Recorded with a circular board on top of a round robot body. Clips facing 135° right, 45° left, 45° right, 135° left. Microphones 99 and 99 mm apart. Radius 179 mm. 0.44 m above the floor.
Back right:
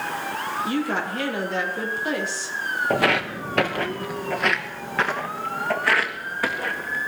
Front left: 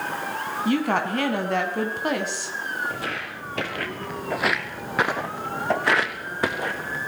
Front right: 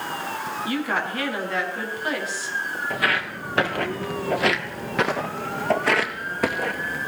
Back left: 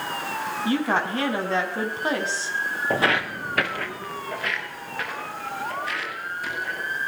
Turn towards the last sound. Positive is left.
turn(degrees=-25)